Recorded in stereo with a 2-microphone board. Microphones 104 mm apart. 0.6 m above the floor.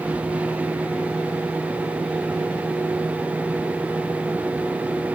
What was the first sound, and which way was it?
Only background noise.